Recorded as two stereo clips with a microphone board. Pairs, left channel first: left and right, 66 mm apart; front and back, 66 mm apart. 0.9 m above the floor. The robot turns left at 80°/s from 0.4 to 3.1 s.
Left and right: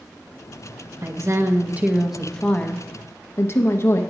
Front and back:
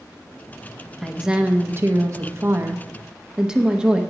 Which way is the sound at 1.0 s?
85° right.